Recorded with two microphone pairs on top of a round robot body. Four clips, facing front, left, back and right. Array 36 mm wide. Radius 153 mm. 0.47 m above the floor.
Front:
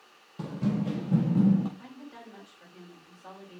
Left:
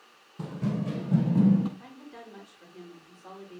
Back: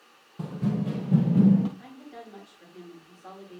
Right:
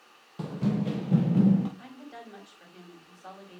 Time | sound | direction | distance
0.4 | running footsteps | 75° right | 0.8 m
1.8 | a woman speaking | 90° right | 3.5 m